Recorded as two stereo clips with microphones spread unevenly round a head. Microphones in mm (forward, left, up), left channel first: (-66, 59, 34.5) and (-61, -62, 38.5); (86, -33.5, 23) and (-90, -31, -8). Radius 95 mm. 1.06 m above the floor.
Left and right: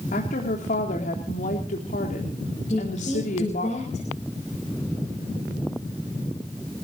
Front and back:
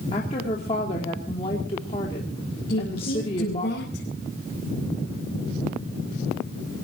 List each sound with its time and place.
0.1 s a woman speaking: 65° left, 3 m
2.7 s a woman speaking: 40° left, 5 m